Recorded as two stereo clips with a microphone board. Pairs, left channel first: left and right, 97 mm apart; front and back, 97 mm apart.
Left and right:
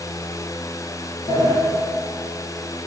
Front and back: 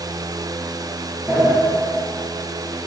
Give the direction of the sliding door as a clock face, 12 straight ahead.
8 o'clock.